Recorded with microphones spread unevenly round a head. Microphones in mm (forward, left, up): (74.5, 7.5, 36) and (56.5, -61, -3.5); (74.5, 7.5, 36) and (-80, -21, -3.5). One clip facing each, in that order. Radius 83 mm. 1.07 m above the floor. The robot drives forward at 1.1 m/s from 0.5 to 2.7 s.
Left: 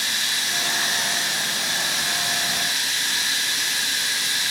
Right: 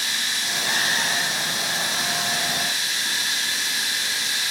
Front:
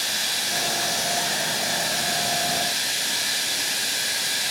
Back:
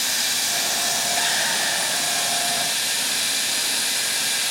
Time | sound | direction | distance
0.0 | running water | 135° left | 6 m